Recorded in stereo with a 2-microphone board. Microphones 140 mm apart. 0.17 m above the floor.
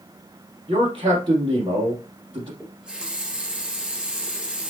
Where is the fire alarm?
I don't hear a fire alarm.